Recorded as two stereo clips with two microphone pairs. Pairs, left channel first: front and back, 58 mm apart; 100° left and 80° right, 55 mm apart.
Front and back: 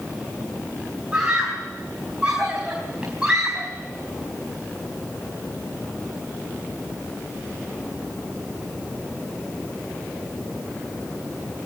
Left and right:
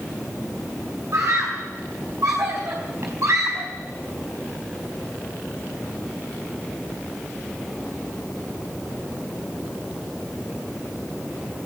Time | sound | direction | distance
1.1 | a scream | 105° right | 4.5 m